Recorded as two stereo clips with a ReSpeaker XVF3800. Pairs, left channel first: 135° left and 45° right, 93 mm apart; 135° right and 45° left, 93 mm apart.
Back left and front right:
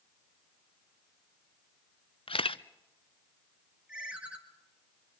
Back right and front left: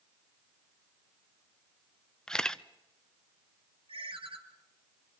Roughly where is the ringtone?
Ahead left.